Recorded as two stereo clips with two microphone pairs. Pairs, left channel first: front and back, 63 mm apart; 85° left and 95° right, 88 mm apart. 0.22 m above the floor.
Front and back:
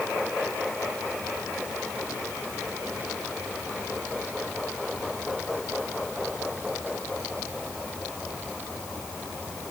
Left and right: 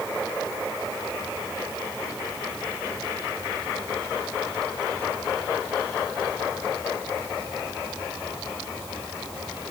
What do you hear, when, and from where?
Only background noise.